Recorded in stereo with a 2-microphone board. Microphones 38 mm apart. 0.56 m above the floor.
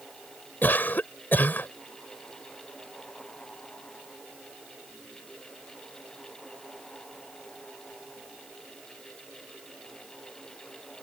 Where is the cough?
55° left (ahead or behind).